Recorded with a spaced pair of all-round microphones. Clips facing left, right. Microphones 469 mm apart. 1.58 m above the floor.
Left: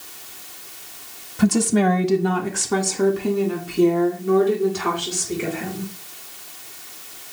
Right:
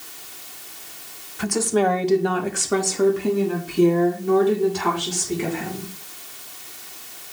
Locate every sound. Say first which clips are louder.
1.4 s a woman speaking: left 3 dB; 60° left (ahead or behind), 1.1 m; by 5.9 s 15° right (ahead or behind), 5 m